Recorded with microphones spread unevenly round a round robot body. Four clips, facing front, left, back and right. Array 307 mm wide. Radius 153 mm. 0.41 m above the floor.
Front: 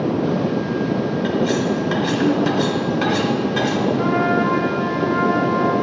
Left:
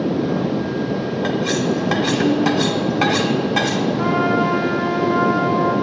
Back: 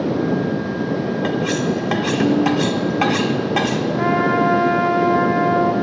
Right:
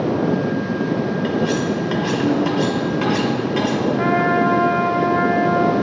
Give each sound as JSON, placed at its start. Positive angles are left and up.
{"t": 1.2, "sound": "cutlery clinking", "azimuth_deg": 160, "distance_m": 1.0}
{"t": 4.0, "sound": "a trumpet", "azimuth_deg": -145, "distance_m": 1.6}